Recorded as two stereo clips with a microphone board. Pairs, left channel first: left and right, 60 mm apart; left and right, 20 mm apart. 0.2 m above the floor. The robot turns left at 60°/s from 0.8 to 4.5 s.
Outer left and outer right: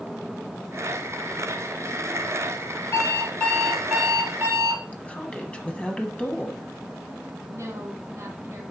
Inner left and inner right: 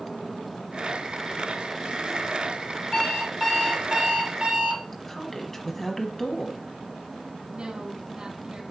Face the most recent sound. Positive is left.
turn(degrees=-55)  # may be behind; listen again after turning